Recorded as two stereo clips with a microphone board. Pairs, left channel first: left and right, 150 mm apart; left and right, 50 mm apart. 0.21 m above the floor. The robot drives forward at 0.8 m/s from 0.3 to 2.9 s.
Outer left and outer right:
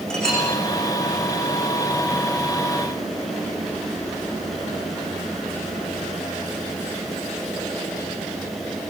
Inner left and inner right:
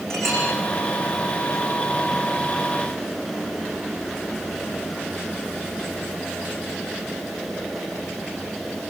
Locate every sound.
0.1 s a clink: 5° left (ahead or behind), 10 m